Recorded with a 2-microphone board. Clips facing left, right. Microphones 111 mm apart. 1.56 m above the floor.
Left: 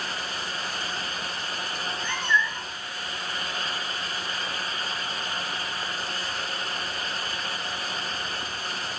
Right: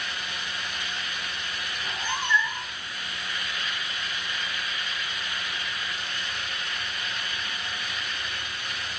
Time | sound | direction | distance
1.8 | a cat meowing | 20° right (ahead or behind) | 7.5 m